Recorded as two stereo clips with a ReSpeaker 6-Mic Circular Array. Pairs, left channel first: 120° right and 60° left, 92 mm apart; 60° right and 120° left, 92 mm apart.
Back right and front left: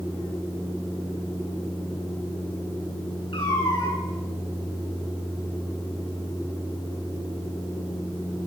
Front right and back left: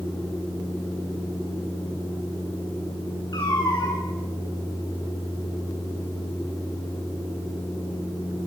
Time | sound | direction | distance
3.3 | a cat meowing | 100° right | 6 m